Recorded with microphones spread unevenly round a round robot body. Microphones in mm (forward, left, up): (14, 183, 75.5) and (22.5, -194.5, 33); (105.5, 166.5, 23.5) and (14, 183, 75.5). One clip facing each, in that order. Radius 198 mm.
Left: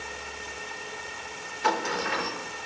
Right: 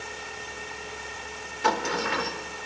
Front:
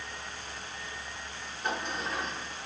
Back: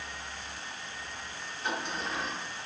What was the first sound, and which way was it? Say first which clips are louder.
A sliding door: right 2 dB, front 1 dB; 85° right.